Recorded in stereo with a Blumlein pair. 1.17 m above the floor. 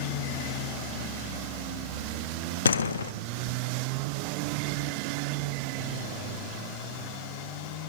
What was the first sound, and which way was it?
A door slam, 70° left.